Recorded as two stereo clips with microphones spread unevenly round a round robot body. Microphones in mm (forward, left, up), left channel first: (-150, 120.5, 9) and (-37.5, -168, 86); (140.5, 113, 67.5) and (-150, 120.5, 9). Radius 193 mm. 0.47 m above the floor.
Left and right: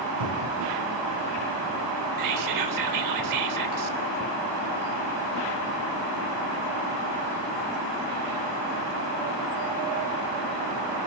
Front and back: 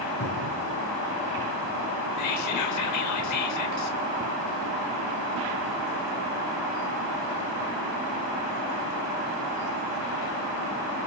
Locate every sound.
0.2 s a cupboard door: 55° right, 5.5 m
2.2 s whispering: 40° right, 2.5 m